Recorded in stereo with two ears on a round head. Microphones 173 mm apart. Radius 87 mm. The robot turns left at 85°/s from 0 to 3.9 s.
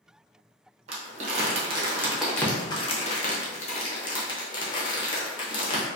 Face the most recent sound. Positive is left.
turn(degrees=25)  # may be behind; listen again after turning